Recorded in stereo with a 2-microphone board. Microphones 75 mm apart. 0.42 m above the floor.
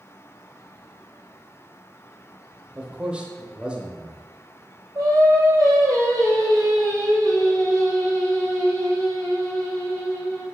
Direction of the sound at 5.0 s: 45° right (ahead or behind).